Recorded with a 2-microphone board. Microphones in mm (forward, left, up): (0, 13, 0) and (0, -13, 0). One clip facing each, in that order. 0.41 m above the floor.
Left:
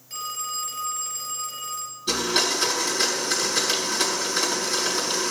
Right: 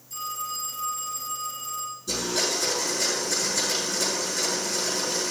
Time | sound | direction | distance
0.1 | a phone ringing | 55° left (ahead or behind) | 4 m
2.1 | a blender | 60° left (ahead or behind) | 4 m